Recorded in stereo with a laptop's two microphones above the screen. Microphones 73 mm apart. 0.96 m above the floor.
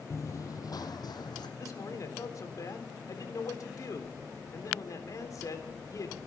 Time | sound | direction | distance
0.1 | running footsteps | 40° left (ahead or behind) | 1.3 m
1.6 | a man speaking | 50° left (ahead or behind) | 3.5 m